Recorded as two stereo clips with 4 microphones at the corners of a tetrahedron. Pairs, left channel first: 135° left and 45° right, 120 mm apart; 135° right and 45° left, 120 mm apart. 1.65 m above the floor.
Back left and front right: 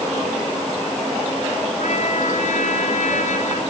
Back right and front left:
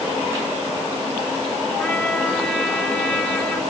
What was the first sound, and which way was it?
A trumpet, 150° left.